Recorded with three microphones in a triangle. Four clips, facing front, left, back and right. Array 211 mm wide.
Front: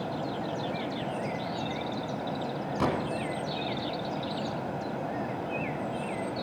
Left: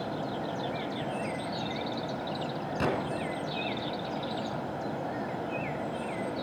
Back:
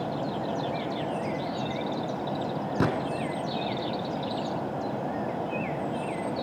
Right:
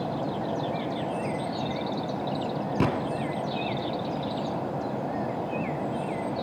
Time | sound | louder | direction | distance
2.8 | a gunshot | right 3 dB, back 1 dB | 135° right | 2.5 m